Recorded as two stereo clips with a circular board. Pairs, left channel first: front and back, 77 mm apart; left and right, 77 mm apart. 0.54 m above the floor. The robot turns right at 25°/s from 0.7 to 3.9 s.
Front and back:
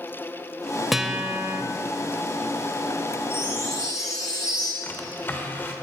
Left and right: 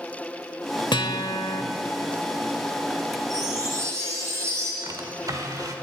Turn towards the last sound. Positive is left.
turn(degrees=-60)